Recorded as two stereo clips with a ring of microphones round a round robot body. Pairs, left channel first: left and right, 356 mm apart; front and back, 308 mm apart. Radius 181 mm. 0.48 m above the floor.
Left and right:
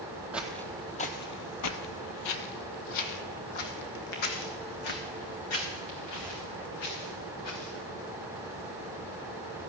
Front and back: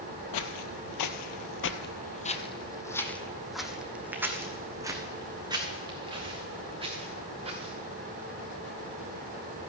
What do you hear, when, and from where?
0.3 s footsteps: 5° right, 1.0 m; by 7.7 s 110° left, 3.5 m